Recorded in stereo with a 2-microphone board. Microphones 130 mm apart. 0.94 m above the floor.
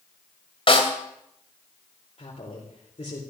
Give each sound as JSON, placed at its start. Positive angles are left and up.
{"t": 0.7, "sound": "a snare drum", "side_deg": 45, "distance_m": 3.0}
{"t": 2.2, "sound": "a woman speaking", "side_deg": 55, "distance_m": 4.0}